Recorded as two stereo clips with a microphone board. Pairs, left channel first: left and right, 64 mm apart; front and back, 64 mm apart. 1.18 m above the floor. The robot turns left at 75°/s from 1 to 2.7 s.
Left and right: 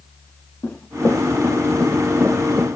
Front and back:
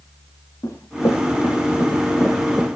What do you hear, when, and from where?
0.6 s running footsteps: 40° left, 5 m; by 2.8 s 75° right, 6 m